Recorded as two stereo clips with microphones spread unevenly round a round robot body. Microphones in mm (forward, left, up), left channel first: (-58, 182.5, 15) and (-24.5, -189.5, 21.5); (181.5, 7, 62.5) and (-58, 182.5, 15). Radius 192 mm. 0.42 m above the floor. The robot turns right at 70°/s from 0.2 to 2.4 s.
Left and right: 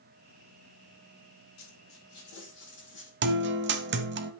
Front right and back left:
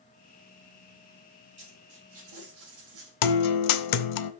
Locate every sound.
1.6 s a dropped coin: 90° left, 7.5 m; by 3.1 s 150° left, 7.5 m
3.2 s a guitar: 20° right, 1.0 m